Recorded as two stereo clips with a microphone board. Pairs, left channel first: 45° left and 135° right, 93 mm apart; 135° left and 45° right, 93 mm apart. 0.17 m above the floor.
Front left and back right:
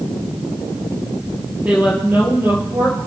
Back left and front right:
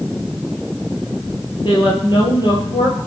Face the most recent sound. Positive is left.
turn(degrees=170)